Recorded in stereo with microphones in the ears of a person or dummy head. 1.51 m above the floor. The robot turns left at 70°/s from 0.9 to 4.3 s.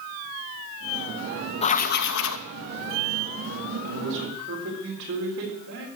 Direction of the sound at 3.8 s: 80° right.